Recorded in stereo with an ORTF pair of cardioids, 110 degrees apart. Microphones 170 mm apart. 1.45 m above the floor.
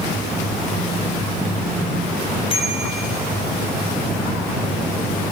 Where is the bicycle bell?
30° left, 6 m.